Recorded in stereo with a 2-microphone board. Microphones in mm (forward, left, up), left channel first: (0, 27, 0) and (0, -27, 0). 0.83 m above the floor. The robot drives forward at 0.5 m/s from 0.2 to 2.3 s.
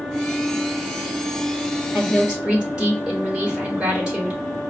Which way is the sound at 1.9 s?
15° right (ahead or behind).